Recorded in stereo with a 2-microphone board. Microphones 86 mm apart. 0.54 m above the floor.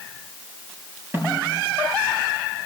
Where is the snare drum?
30° right (ahead or behind), 6 m.